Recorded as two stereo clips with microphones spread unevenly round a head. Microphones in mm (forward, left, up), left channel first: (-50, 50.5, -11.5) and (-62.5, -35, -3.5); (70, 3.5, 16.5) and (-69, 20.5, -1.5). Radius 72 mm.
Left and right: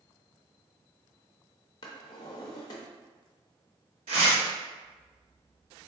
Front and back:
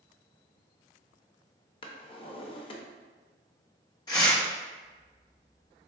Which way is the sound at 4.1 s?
75° right.